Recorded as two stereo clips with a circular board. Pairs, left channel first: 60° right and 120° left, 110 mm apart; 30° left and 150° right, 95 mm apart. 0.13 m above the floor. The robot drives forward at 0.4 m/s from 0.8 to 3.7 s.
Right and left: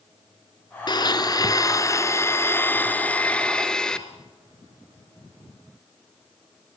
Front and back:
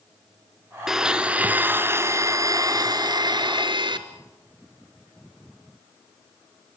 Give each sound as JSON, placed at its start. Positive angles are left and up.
{"t": 0.9, "sound": "a blender", "azimuth_deg": -65, "distance_m": 1.1}